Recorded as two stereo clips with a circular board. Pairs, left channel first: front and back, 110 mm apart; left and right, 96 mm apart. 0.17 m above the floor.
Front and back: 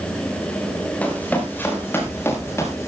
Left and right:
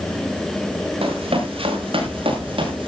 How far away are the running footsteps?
About 6 m.